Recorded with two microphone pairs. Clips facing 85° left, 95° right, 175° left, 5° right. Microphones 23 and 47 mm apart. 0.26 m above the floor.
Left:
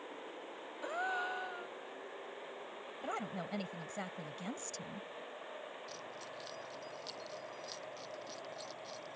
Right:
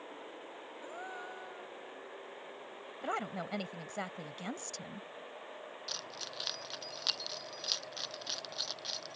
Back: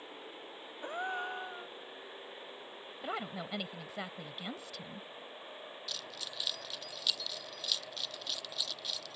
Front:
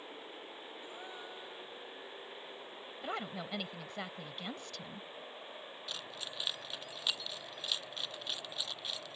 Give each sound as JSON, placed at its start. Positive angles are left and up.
{"t": 0.8, "sound": "a gasp", "azimuth_deg": 140}
{"t": 3.0, "sound": "a woman speaking", "azimuth_deg": -110}
{"t": 5.9, "sound": "keys jangling", "azimuth_deg": -70}